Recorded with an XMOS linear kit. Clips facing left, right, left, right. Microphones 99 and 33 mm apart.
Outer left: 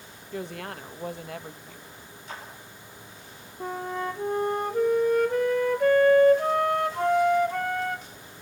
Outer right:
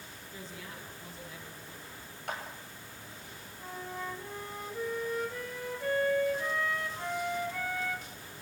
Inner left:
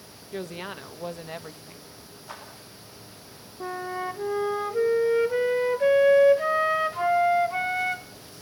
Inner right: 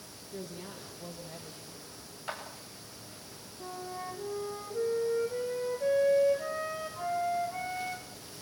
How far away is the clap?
About 9 m.